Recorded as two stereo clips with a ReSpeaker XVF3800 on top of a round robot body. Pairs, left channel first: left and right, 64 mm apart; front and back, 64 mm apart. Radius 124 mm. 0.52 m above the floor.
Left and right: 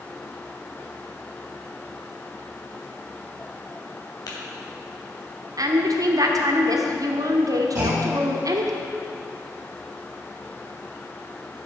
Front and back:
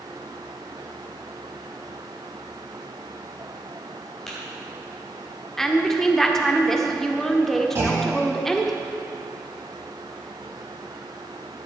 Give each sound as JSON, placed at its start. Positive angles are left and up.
{"t": 4.3, "sound": "tapping", "azimuth_deg": 85, "distance_m": 3.0}
{"t": 5.6, "sound": "a woman speaking", "azimuth_deg": -85, "distance_m": 1.4}
{"t": 7.8, "sound": "a clunk", "azimuth_deg": -135, "distance_m": 3.5}